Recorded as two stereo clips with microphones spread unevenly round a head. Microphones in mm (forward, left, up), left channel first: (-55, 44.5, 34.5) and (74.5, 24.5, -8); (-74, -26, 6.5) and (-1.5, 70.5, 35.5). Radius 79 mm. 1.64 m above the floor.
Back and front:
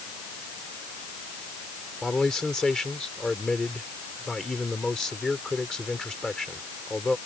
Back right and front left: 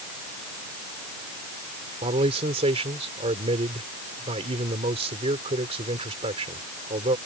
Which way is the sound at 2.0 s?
90° left.